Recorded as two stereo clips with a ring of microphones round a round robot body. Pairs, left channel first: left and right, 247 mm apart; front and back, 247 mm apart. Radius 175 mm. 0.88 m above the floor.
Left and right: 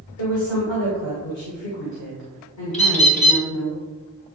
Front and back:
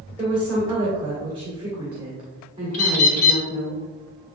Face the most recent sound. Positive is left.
turn(degrees=25)